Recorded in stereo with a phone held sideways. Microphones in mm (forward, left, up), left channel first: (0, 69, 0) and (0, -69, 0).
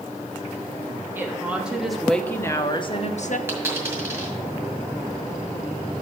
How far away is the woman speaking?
About 1.1 m.